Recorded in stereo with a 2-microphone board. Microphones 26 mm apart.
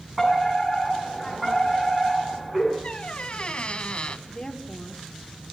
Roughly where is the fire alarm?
Centre.